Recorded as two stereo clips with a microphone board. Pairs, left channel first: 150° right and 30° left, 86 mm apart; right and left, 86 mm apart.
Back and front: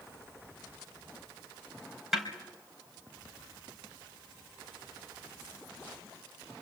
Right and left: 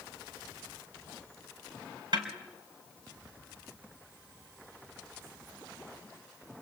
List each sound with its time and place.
2.1 s a snare drum: 115° left, 3.5 m